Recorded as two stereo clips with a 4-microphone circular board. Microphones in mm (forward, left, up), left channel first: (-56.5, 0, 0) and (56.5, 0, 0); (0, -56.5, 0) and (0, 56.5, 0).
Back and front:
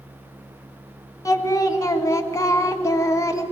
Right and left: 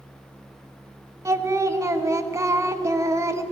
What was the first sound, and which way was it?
Singing, 140° left.